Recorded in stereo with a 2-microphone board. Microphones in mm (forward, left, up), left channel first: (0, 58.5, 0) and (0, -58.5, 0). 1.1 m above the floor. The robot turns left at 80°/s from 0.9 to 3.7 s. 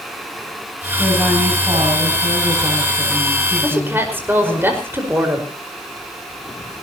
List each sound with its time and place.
1.0 s a woman speaking: 25° left, 7 m; by 4.6 s 165° left, 7 m
3.6 s a woman speaking: 25° right (ahead or behind), 5 m; by 5.5 s 20° right (ahead or behind), 5 m